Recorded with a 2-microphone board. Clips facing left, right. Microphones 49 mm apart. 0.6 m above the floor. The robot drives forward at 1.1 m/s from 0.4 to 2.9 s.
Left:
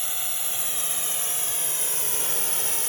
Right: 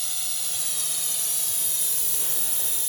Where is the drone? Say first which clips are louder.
Left 2 dB; 30° left (ahead or behind); by 2.9 s 60° left (ahead or behind).